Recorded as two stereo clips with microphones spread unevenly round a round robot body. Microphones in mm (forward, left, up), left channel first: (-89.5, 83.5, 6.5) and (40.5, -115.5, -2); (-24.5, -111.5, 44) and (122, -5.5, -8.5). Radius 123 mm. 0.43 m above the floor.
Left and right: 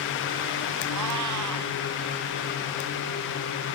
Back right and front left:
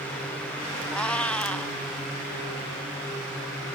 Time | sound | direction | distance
0.9 | a cat meowing | 60° right | ?